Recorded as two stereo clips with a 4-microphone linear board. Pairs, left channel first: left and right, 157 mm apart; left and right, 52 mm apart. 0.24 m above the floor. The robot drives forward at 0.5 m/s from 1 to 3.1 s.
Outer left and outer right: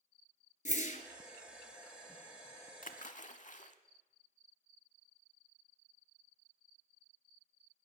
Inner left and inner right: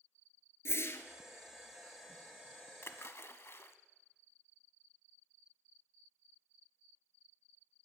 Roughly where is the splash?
Left.